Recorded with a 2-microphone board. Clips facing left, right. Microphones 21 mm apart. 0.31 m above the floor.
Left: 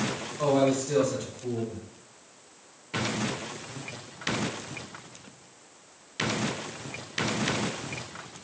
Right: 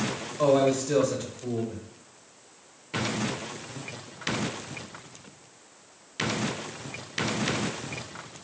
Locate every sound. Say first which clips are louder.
0.4 s a man speaking: right 2 dB; 25° right (ahead or behind), 0.9 m